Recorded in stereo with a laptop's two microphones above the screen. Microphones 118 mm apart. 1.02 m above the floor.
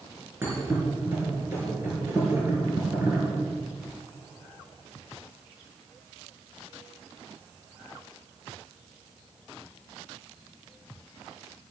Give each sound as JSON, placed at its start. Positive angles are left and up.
{"t": 0.4, "sound": "a thud", "side_deg": -20, "distance_m": 4.5}